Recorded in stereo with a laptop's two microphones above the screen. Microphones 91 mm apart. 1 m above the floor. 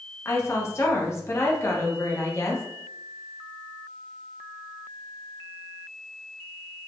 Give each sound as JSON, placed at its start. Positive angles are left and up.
{"t": 0.2, "sound": "a woman speaking", "side_deg": 30, "distance_m": 0.7}